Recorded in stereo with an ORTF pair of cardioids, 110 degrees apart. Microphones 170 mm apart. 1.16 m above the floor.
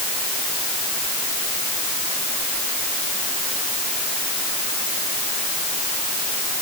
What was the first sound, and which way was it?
Only background noise.